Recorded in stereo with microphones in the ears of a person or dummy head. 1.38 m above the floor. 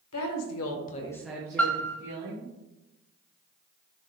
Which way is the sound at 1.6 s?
5° left (ahead or behind).